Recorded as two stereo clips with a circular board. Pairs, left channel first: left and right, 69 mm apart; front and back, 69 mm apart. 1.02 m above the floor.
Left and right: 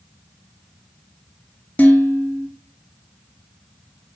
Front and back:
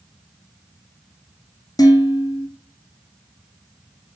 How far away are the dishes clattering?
About 1.2 m.